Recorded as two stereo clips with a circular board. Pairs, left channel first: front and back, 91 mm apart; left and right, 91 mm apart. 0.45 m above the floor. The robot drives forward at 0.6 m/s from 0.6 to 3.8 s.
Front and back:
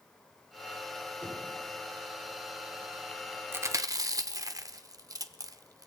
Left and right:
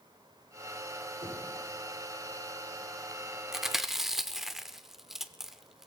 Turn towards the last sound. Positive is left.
turn(degrees=-175)